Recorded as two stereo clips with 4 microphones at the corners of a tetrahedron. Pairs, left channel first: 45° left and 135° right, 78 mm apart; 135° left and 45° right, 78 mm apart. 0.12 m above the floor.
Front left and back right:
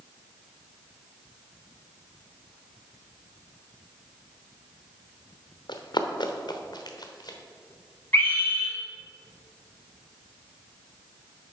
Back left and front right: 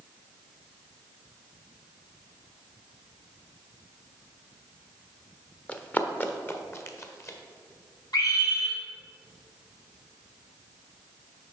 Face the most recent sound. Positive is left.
turn(degrees=105)